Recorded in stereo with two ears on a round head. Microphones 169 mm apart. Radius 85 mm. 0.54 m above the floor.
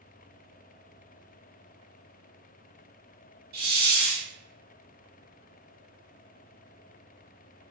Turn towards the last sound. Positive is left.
turn(degrees=-45)  # may be behind; listen again after turning